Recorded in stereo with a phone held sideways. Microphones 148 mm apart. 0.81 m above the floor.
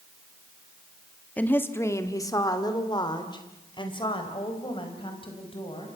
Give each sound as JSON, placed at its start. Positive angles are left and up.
{"t": 1.4, "sound": "a woman speaking", "side_deg": 10, "distance_m": 1.6}